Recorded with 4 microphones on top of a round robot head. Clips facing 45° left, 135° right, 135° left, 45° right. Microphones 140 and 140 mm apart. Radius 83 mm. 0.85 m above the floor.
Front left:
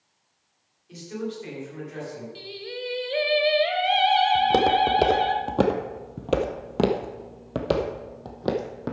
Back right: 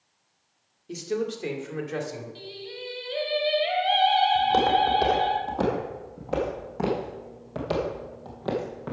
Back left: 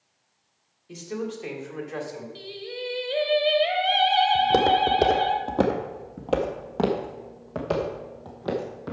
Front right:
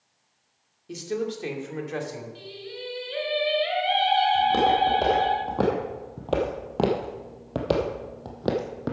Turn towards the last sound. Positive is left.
turn(degrees=-5)